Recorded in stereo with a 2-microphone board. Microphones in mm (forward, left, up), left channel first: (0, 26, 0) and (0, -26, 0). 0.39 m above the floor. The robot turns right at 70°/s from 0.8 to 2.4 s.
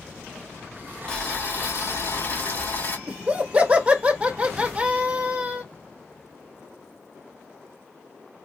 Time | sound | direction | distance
1.1 | boiling | 20° left | 1.9 m
3.1 | laughter | 25° right (ahead or behind) | 1.1 m